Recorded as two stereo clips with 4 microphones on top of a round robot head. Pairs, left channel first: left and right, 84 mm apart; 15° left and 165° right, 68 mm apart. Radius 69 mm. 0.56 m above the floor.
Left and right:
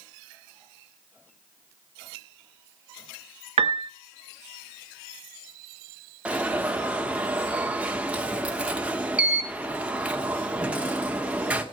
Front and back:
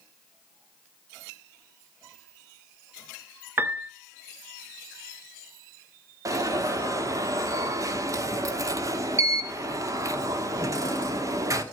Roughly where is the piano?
Right.